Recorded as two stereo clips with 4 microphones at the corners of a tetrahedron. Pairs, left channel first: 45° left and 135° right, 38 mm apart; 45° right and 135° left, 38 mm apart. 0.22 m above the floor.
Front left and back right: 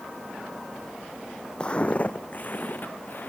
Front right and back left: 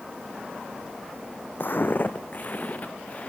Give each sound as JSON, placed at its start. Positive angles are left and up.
{"t": 1.6, "sound": "footsteps", "azimuth_deg": -20, "distance_m": 0.5}